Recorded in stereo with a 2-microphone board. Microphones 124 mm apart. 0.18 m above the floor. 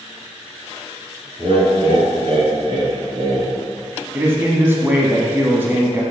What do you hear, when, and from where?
1.4 s laughter: 55° right (ahead or behind), 1.8 m; by 3.5 s 35° right (ahead or behind), 2.5 m
4.1 s a man speaking: 20° right (ahead or behind), 1.0 m